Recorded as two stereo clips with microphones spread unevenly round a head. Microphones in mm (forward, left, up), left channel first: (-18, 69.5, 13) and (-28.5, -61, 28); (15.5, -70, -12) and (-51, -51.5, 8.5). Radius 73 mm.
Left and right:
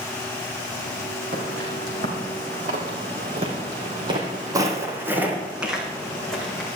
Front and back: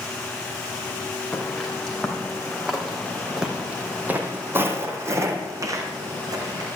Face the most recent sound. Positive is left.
turn(degrees=170)